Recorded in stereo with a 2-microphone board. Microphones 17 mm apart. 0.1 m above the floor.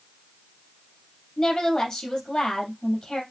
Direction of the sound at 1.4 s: 50° left (ahead or behind).